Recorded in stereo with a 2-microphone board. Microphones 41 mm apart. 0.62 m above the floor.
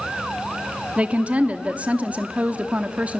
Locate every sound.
1.0 s a woman speaking: 35° right (ahead or behind), 0.8 m